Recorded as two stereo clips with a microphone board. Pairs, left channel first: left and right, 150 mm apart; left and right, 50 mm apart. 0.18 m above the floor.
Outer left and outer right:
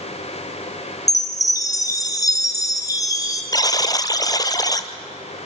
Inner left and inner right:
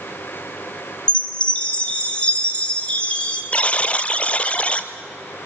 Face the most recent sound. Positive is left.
turn(degrees=25)  # may be behind; listen again after turning